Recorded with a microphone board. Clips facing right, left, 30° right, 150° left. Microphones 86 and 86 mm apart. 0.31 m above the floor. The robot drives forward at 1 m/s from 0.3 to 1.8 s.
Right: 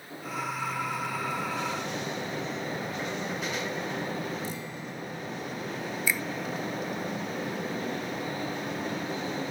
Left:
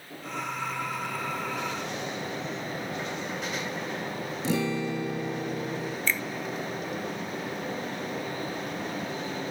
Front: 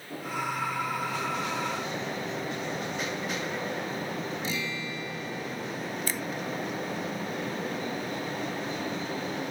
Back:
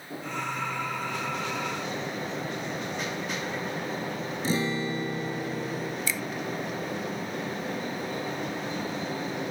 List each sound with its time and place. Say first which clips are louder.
4.4 s a guitar: left 10 dB, back 6 dB; 95° left
6.1 s a finger snap: even, back 1 dB; 10° right